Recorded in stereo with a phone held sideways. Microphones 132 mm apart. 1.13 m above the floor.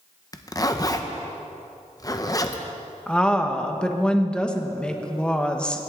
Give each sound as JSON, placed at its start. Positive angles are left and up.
{"t": 0.3, "sound": "a zipper", "side_deg": 30, "distance_m": 0.7}
{"t": 3.1, "sound": "a woman speaking", "side_deg": 10, "distance_m": 1.0}